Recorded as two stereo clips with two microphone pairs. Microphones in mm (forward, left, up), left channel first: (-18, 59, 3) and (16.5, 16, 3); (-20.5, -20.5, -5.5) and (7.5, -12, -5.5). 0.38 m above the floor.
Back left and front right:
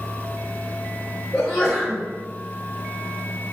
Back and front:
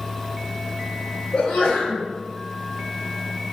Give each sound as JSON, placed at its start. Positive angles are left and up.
{"t": 1.3, "sound": "a sneeze", "azimuth_deg": -155, "distance_m": 1.6}